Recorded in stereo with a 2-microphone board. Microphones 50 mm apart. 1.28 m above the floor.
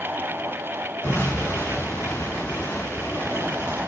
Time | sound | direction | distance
1.0 | an explosion | 60° left (ahead or behind) | 2 m